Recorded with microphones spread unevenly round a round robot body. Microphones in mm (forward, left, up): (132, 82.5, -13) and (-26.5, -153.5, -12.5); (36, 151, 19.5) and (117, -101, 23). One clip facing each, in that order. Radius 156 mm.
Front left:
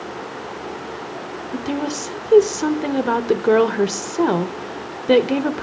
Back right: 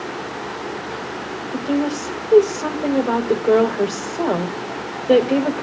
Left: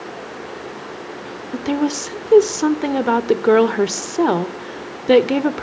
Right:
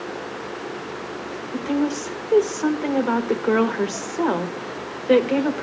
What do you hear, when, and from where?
1.5 s a woman speaking: 105° left, 1.2 m